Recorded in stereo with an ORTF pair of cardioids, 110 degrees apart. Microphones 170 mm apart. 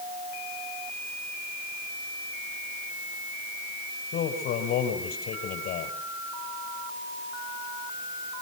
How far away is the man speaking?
About 6.5 m.